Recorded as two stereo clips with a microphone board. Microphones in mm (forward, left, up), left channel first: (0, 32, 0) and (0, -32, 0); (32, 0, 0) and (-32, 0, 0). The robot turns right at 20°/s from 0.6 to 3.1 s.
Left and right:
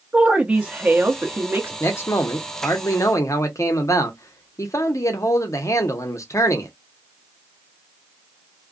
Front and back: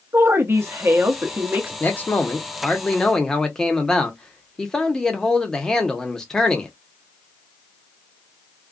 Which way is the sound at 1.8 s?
50° left.